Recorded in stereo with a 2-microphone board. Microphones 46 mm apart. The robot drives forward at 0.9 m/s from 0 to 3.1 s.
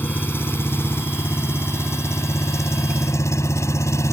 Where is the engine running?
45° left (ahead or behind); by 4.1 s 75° left (ahead or behind).